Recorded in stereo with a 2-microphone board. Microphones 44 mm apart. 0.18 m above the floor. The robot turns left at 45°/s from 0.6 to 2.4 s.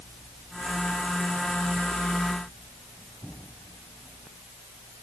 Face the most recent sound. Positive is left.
No sound to turn to.